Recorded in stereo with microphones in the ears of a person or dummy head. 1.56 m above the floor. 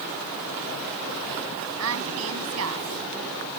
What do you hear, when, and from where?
1.8 s a woman speaking: 75° right (ahead or behind)